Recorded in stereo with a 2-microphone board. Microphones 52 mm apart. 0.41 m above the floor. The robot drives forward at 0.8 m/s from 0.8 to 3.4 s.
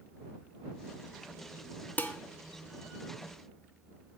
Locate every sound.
2.0 s dishes clattering: 35° left (ahead or behind), 0.6 m